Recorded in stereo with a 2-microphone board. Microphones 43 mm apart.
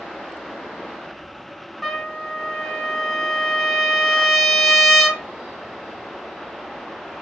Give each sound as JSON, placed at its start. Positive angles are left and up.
{"t": 1.8, "sound": "a trumpet", "side_deg": 0, "distance_m": 0.6}